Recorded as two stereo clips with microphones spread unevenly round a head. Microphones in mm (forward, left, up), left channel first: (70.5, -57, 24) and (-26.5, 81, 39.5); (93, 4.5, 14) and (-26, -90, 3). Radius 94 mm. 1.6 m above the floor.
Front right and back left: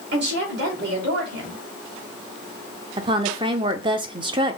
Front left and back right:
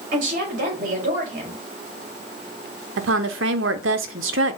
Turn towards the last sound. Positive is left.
turn(degrees=-170)